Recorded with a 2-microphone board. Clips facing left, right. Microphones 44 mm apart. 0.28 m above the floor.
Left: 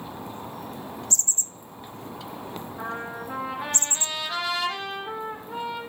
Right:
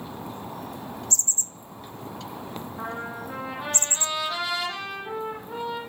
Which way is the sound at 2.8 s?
Centre (ahead or behind).